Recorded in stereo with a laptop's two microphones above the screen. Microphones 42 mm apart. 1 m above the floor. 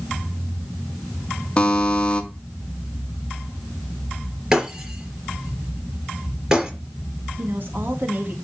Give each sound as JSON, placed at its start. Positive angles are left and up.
{"t": 1.6, "sound": "a buzzer", "side_deg": 20, "distance_m": 1.7}
{"t": 4.5, "sound": "breaking glass", "side_deg": -15, "distance_m": 4.5}
{"t": 7.4, "sound": "a woman speaking", "side_deg": -55, "distance_m": 1.8}